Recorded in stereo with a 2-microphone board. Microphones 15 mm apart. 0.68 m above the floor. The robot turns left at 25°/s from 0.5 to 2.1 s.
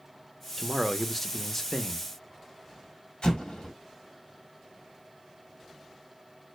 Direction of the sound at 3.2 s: 75° left (ahead or behind).